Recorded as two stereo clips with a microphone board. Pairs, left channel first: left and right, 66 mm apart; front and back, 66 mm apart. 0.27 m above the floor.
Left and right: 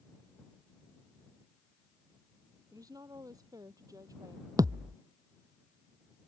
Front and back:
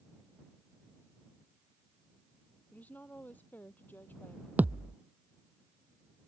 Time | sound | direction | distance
2.7 | a woman speaking | 65° right | ?
4.6 | a thud | 115° right | ?